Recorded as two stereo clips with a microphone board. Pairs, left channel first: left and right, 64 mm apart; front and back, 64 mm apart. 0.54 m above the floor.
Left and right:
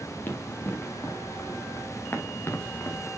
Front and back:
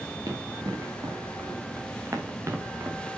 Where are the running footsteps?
150° left, 3.5 m; by 3.1 s 130° left, 2.0 m.